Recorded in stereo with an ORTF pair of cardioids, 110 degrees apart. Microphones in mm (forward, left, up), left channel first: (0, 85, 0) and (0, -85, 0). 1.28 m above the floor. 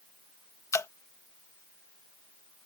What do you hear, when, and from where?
0.7 s dripping: 20° left